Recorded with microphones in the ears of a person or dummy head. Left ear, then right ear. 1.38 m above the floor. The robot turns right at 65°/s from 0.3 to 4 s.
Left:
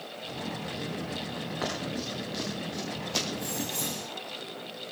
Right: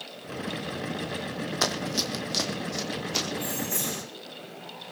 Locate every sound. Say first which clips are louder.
1.6 s running footsteps: right 7 dB; 70° right (ahead or behind), 3.5 m; by 3.2 s centre (ahead or behind), 5 m
3.3 s keys jangling: right 2 dB; 175° right, 3.5 m; by 4.0 s 130° right, 3.5 m